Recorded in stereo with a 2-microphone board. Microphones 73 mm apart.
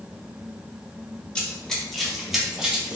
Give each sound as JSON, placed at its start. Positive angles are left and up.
{"t": 1.4, "sound": "running footsteps", "side_deg": 15, "distance_m": 1.5}